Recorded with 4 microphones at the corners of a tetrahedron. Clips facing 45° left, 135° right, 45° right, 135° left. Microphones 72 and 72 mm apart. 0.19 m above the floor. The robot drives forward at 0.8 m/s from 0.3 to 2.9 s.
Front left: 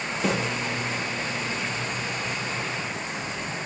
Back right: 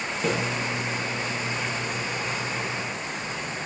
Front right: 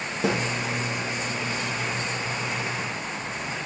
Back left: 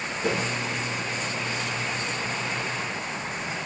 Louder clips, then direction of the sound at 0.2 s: Even, front right 2 dB; 45° right.